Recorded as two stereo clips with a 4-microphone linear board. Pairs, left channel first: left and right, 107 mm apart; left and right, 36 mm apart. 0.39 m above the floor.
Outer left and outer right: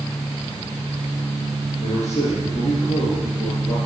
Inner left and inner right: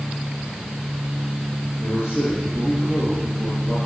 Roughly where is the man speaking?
Left.